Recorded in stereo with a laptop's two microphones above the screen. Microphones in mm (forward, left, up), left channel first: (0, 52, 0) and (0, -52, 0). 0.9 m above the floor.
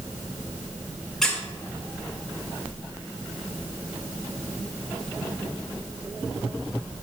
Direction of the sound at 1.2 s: 5° left (ahead or behind).